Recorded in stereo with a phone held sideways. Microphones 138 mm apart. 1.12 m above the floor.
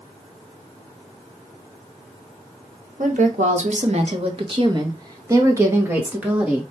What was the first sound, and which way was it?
A woman speaking, 70° right (ahead or behind).